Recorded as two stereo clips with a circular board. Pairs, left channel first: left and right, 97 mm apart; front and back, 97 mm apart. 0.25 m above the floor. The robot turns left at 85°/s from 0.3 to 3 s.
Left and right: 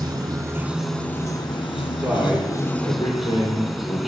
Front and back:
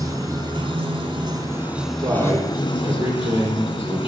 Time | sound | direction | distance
0.0 | running water | 130° right | 0.8 m
2.0 | a man speaking | 145° right | 2.5 m